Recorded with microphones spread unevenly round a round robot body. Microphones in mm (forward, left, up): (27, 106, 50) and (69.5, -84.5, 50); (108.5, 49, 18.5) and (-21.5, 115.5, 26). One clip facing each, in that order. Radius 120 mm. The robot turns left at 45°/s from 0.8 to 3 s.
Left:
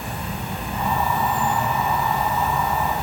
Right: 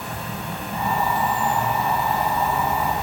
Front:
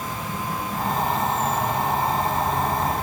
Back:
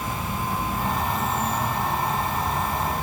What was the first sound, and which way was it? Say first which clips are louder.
An insect: left 1 dB, back 1 dB; 90° left.